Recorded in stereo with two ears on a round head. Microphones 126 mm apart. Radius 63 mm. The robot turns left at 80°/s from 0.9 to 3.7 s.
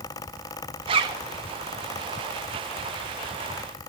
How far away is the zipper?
About 1.0 m.